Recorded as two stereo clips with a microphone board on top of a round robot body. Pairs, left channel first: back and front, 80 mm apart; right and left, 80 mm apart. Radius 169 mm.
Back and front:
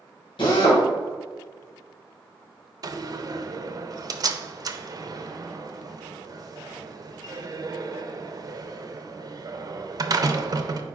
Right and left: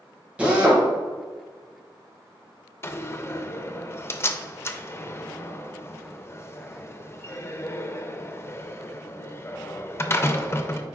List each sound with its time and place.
0.4 s a drill: 165° left, 1.9 m
2.8 s a door slam: 35° right, 0.7 m